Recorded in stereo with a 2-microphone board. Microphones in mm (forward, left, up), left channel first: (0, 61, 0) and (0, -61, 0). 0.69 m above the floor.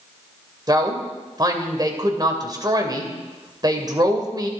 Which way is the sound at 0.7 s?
35° right (ahead or behind).